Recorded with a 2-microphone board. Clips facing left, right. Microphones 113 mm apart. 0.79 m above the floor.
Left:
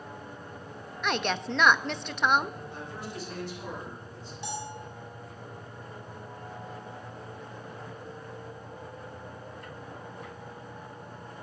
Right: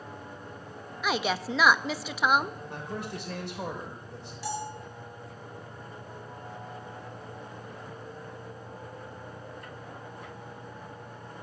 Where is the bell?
20° left (ahead or behind), 2.5 m.